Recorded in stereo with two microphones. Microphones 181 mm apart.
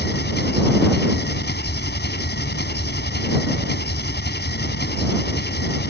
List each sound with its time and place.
0.0 s an engine running: 70° left (ahead or behind)